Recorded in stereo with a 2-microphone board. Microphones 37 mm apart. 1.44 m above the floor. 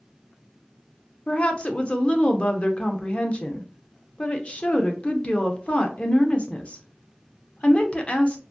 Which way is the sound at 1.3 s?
35° left (ahead or behind).